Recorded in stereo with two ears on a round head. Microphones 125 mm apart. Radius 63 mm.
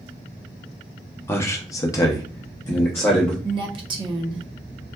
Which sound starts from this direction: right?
A woman speaking, at 3.4 s.